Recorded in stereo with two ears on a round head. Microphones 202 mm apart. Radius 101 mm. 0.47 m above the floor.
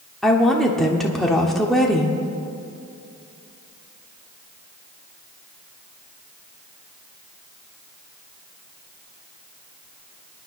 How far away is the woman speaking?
About 1.1 m.